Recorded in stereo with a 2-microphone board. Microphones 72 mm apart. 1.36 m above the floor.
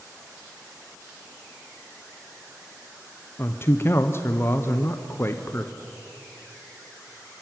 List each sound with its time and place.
3.4 s a man speaking: 35° left (ahead or behind), 0.8 m